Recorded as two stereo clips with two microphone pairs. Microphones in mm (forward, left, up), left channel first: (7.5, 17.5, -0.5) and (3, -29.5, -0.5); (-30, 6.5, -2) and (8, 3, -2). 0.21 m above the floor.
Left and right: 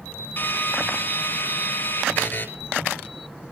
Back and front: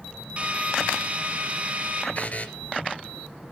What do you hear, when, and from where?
0.4 s a drill: 45° left, 3 m
2.1 s a buzzer: 125° left, 2.0 m